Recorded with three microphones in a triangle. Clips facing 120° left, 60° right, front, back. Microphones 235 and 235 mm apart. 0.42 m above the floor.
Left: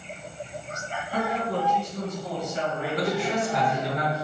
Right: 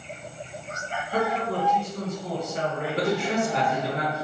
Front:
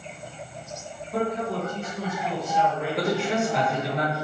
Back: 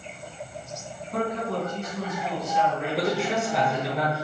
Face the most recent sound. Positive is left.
turn(degrees=-95)